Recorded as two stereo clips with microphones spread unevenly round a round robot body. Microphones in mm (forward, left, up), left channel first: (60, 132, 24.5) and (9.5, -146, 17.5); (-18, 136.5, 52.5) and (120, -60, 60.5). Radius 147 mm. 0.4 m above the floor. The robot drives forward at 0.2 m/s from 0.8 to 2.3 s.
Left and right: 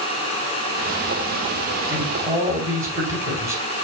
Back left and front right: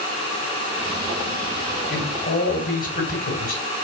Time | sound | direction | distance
1.9 | a man speaking | straight behind | 3.5 m